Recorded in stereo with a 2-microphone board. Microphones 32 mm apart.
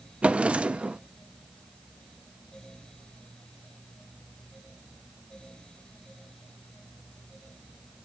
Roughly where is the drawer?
Right.